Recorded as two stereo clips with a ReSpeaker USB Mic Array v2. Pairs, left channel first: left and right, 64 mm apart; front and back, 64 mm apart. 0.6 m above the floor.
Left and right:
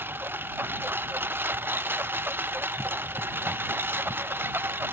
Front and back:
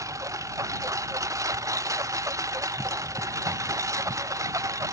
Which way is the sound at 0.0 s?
145° right.